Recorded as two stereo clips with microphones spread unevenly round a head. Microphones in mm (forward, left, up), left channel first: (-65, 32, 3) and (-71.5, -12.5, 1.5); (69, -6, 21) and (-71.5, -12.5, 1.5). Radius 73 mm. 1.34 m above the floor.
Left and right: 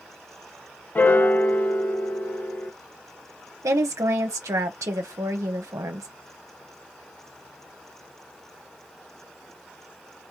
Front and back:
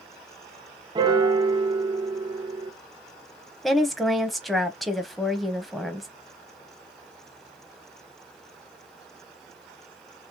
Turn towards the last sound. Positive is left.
turn(degrees=-85)